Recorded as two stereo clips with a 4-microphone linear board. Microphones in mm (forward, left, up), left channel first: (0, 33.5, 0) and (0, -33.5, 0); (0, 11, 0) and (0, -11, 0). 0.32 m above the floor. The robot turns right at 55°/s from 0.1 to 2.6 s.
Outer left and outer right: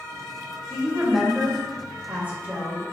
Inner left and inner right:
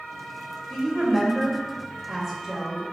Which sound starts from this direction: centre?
A woman speaking, at 0.7 s.